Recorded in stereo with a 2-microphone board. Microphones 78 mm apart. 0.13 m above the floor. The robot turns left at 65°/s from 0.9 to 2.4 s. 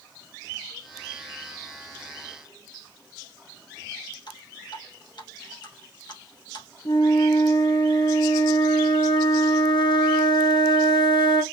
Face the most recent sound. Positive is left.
turn(degrees=75)  # may be behind; listen again after turning